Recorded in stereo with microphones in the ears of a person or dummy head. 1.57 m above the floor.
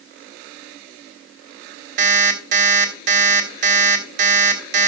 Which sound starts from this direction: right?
An alarm clock, at 2.0 s.